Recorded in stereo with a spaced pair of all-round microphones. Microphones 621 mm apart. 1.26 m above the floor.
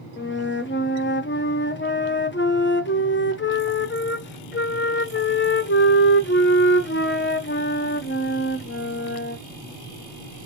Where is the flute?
20° left (ahead or behind), 0.5 m.